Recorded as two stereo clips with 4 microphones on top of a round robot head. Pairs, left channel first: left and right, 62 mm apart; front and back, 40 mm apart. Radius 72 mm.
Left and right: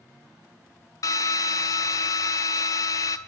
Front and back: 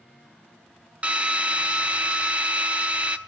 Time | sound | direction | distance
1.0 | a drill | 125° left | 0.5 m